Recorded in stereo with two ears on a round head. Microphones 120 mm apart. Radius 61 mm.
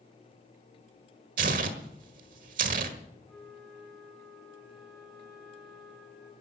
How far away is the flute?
About 3.5 m.